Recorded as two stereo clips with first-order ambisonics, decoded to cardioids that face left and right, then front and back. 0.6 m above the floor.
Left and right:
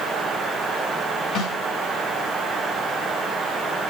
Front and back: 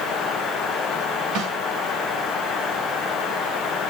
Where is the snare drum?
140° left, 1.0 m.